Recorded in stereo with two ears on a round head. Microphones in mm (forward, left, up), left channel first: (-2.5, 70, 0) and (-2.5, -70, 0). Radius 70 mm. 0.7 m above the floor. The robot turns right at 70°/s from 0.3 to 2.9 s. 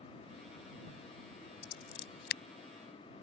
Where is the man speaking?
No man speaking in this recording.